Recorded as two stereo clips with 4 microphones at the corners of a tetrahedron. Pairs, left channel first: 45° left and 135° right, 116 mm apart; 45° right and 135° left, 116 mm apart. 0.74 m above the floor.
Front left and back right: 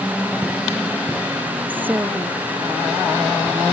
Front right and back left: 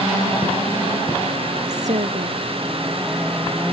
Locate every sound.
1.7 s a woman speaking: 150° left